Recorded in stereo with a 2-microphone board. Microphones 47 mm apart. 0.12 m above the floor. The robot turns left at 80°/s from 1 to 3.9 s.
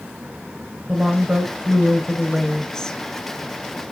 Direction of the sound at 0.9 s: 25° right (ahead or behind).